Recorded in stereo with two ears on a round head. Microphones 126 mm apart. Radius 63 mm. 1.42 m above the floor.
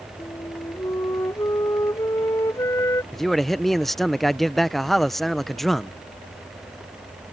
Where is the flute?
20° left (ahead or behind).